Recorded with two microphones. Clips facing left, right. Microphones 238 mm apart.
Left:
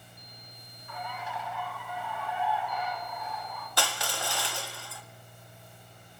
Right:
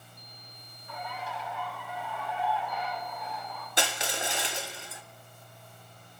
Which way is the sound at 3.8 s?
20° right (ahead or behind).